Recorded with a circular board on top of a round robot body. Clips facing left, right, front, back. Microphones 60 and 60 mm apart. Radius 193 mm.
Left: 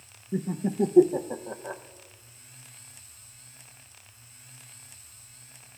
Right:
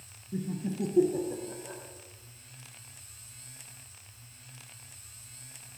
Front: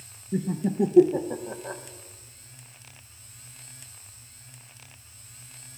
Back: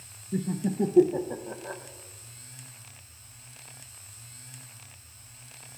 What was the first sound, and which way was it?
Laughter, 80° left.